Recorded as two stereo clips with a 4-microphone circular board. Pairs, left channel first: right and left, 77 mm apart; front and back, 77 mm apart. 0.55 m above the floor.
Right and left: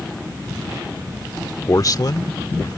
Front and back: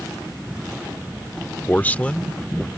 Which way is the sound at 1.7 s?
60° right.